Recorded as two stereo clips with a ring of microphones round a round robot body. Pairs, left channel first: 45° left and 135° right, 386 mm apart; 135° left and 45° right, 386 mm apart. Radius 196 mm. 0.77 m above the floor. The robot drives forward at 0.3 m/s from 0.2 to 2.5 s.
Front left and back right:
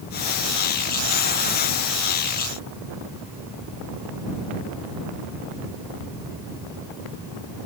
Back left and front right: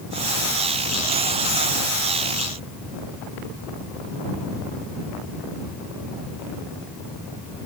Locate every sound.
Only background noise.